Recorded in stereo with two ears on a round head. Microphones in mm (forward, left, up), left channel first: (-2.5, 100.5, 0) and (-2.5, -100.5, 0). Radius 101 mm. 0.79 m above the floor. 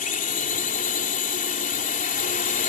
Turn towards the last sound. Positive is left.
turn(degrees=35)  # may be behind; listen again after turning